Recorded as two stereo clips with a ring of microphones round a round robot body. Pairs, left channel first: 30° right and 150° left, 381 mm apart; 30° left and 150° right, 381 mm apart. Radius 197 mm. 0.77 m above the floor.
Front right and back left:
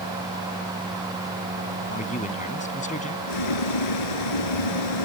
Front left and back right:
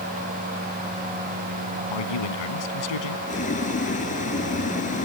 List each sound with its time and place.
1.9 s a man speaking: 40° left
3.3 s boiling: 40° right